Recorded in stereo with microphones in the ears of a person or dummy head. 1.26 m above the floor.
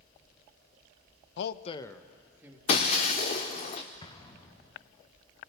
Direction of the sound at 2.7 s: 25° left (ahead or behind).